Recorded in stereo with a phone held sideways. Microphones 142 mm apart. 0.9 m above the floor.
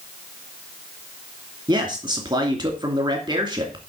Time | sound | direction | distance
1.7 | a man speaking | 30° right (ahead or behind) | 2.5 m